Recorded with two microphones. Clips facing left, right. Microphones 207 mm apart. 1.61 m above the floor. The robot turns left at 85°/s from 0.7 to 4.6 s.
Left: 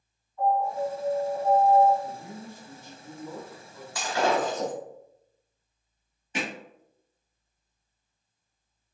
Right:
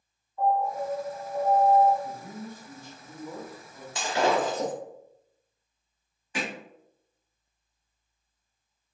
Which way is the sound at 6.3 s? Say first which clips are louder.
Even; 25° left (ahead or behind).